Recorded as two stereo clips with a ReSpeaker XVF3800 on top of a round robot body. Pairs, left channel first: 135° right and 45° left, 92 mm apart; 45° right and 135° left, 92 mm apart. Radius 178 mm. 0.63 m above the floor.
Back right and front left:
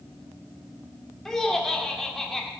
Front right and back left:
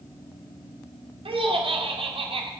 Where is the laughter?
140° left, 2 m.